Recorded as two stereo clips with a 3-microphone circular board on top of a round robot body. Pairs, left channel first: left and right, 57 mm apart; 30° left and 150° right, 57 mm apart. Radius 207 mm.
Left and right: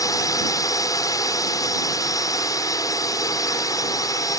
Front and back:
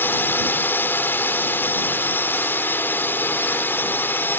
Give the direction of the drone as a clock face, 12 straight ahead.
9 o'clock.